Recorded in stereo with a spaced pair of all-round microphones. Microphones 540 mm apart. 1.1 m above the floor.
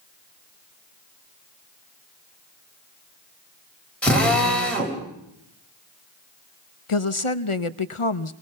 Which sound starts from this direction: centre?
A drill, at 4.0 s.